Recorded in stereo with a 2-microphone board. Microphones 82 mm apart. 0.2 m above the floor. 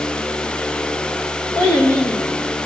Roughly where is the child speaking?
Left.